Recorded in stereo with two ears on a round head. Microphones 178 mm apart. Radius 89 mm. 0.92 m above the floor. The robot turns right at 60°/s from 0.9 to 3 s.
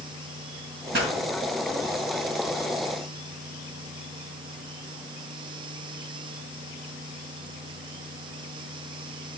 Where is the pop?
60° right (ahead or behind), 2.5 m; by 1.1 s 70° right (ahead or behind), 2.5 m.